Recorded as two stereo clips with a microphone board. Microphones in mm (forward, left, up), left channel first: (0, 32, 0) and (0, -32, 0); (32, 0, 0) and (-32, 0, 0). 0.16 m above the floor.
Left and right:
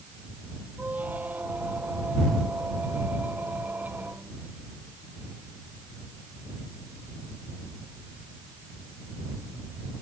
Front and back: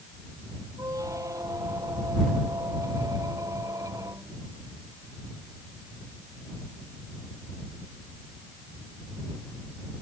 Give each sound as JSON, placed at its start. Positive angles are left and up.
{"t": 0.8, "sound": "a squeak", "azimuth_deg": -155}